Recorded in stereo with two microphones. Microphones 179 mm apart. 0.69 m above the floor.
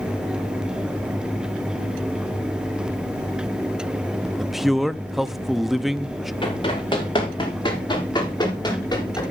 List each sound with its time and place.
4.4 s a man speaking: centre (ahead or behind), 0.8 m
6.4 s running footsteps: 25° left (ahead or behind), 9 m; by 9.2 s 20° left (ahead or behind), 12.5 m